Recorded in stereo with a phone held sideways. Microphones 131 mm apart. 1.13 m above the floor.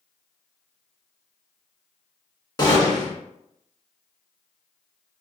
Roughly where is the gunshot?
Left.